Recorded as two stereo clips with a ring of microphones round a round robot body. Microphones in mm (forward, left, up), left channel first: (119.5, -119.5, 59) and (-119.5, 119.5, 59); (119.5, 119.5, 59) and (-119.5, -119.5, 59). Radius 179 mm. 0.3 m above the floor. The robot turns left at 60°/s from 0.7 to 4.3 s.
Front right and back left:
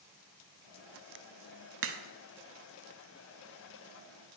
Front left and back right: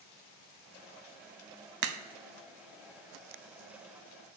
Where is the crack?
170° right, 0.6 m; by 2.0 s straight behind, 0.6 m.